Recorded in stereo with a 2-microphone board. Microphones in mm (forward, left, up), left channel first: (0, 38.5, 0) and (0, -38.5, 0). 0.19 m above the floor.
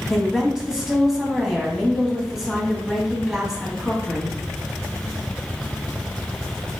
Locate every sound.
0.1 s a woman speaking: 5° right (ahead or behind), 1.2 m